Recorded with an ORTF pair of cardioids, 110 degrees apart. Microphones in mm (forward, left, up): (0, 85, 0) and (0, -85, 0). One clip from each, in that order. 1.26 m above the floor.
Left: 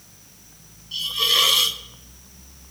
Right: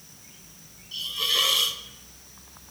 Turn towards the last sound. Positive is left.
turn(degrees=20)